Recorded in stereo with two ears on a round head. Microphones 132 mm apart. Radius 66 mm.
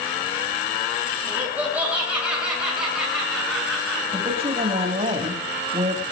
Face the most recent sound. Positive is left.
turn(degrees=-40)  # may be behind; listen again after turning